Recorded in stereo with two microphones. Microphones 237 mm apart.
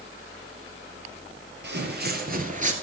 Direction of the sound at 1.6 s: 50° right (ahead or behind).